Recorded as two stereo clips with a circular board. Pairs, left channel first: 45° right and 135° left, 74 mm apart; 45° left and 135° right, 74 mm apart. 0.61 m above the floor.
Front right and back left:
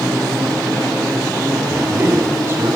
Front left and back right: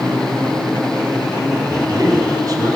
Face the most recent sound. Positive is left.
turn(degrees=-170)